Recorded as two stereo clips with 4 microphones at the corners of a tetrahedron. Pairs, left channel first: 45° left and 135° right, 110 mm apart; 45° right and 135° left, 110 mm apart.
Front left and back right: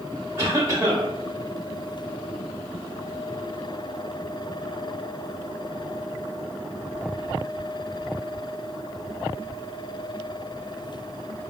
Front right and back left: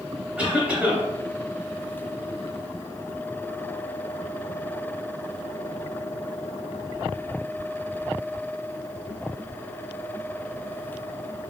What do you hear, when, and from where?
0.4 s a cough: 160° right, 1.0 m